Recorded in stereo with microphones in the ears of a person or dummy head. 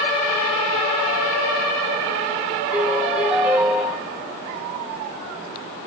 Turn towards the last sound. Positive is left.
turn(degrees=-10)  # may be behind; listen again after turning